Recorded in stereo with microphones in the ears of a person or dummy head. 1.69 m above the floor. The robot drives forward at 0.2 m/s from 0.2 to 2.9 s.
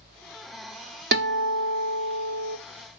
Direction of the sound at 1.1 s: 55° right (ahead or behind).